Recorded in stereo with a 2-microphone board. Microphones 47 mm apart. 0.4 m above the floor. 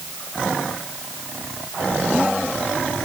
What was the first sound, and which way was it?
Only background noise.